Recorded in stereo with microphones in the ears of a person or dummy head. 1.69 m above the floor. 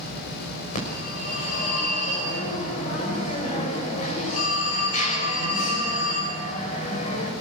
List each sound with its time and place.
0.8 s a phone ringing: 45° left (ahead or behind), 6.5 m